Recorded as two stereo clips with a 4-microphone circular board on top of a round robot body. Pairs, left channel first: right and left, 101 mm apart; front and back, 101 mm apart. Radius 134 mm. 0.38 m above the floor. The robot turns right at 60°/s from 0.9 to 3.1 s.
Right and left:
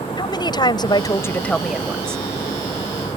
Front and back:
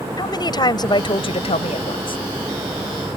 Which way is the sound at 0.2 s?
45° right.